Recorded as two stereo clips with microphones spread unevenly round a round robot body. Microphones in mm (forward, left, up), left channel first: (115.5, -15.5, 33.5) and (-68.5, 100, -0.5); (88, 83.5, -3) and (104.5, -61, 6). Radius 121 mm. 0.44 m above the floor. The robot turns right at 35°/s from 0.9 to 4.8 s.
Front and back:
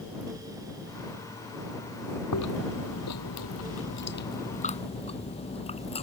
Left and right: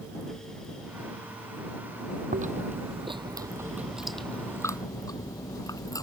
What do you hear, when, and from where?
2.3 s chewing: 55° right; by 6.0 s 30° left